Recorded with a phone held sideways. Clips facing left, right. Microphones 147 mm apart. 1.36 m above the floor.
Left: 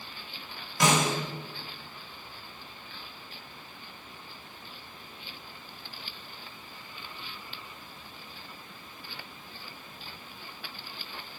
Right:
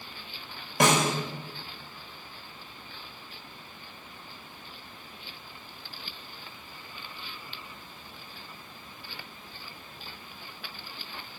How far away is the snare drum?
About 1.1 m.